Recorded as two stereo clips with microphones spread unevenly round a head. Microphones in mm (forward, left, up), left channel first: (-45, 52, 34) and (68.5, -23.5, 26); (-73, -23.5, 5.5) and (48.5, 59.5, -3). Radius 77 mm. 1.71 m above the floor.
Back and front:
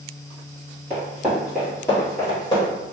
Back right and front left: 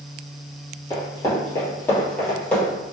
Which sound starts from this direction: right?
Running footsteps, at 0.9 s.